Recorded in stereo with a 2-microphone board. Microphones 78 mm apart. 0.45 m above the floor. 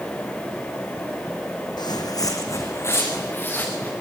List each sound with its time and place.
1.8 s footsteps: 70° left (ahead or behind), 1.7 m; by 3.9 s 25° left (ahead or behind), 4 m